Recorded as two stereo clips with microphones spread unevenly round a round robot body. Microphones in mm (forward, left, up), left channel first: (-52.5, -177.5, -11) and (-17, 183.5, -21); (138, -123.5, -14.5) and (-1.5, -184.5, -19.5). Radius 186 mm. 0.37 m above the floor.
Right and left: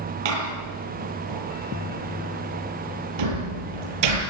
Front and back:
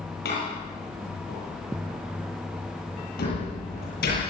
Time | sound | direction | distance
0.2 | a door slam | 65° left | 7 m